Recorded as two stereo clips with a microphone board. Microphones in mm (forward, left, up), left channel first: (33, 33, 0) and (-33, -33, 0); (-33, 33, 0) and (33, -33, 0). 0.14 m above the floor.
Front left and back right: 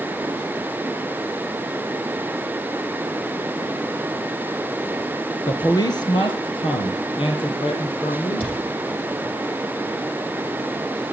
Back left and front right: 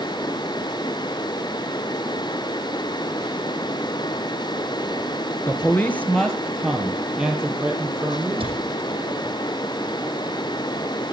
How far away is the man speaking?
About 1.6 m.